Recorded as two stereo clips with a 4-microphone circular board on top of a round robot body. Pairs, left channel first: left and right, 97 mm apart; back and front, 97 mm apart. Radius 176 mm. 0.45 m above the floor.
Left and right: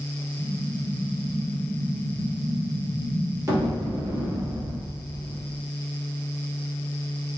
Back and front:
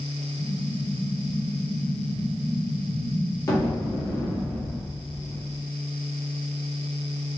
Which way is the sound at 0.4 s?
135° right.